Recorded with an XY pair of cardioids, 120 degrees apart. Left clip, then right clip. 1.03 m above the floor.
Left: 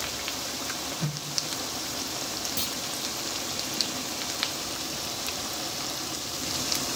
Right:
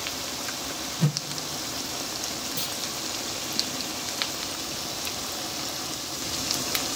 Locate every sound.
1.0 s a whoosh: 40° right, 0.8 m
2.6 s a clunk: 20° left, 1.0 m